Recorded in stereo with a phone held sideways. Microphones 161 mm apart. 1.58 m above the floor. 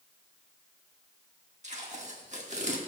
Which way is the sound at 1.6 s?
50° right (ahead or behind).